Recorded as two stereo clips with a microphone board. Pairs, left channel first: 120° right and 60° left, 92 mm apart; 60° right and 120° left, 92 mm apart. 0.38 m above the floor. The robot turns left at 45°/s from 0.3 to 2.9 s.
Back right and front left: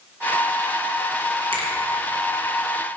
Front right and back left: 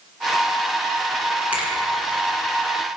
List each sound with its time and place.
1.5 s a finger snap: 45° left, 3.5 m; by 1.7 s 35° left, 3.5 m